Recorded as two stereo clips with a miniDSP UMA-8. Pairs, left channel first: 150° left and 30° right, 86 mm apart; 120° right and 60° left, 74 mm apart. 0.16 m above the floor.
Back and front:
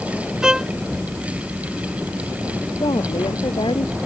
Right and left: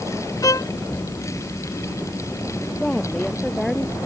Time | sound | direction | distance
0.4 | a violin | 110° right | ?
2.8 | a woman speaking | 160° left | ?